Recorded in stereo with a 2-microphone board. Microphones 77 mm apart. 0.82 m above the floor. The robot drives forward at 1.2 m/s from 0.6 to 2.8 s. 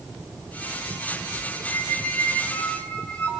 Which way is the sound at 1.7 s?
25° left (ahead or behind).